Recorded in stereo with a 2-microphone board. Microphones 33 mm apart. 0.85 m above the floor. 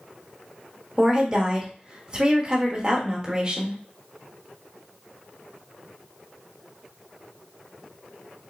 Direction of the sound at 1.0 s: 25° right (ahead or behind).